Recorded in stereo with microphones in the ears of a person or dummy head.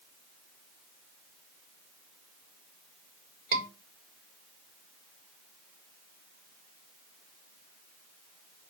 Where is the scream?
55° right (ahead or behind), 4 m.